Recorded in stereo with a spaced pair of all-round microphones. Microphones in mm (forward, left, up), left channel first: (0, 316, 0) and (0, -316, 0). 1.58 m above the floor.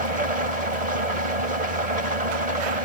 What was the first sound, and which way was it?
An engine running, 75° right (ahead or behind).